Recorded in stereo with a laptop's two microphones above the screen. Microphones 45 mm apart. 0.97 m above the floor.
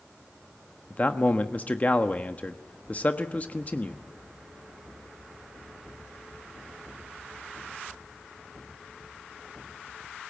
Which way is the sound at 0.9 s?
35° left (ahead or behind).